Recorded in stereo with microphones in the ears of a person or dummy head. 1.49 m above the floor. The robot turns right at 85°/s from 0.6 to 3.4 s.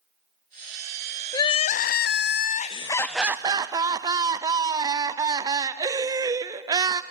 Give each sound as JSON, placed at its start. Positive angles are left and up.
{"t": 1.3, "sound": "crying", "azimuth_deg": 25, "distance_m": 0.5}